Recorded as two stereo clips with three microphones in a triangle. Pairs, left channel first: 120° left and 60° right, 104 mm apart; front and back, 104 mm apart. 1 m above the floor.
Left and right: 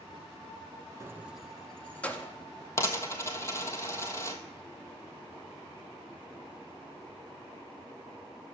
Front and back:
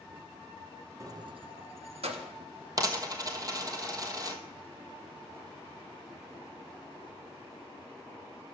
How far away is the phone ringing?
No phone ringing in this recording.